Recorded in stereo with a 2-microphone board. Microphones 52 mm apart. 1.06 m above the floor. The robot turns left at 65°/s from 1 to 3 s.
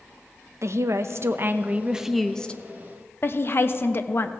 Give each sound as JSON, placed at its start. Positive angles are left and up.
{"t": 0.6, "sound": "a woman speaking", "azimuth_deg": -105, "distance_m": 0.6}